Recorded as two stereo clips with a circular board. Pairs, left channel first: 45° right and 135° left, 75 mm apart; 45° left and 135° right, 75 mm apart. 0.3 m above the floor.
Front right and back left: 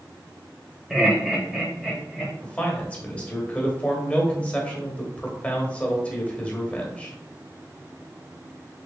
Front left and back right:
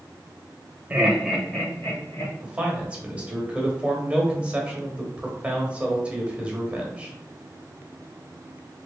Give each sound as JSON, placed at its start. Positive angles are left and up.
{"t": 0.9, "sound": "laughter", "azimuth_deg": -150, "distance_m": 0.9}
{"t": 2.4, "sound": "a man speaking", "azimuth_deg": -90, "distance_m": 0.9}